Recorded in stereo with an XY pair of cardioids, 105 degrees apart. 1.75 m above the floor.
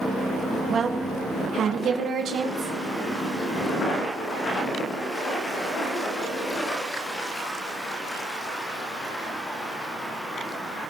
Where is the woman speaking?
40° right, 1.4 m; by 2.8 s 70° right, 2 m.